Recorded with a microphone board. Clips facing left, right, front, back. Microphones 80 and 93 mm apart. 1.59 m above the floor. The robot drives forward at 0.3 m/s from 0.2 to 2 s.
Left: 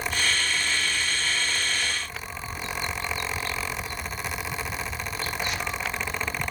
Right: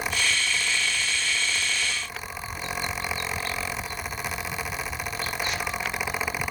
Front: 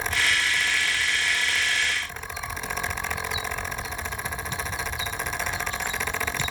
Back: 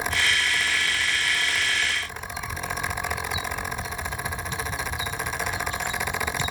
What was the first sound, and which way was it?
Only background noise.